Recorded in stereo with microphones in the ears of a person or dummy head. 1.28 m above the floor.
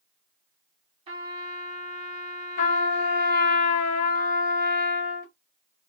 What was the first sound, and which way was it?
A trumpet, 30° right (ahead or behind).